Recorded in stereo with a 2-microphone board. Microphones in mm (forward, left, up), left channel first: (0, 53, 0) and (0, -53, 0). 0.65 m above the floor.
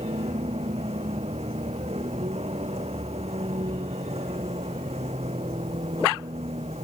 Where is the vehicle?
85° right.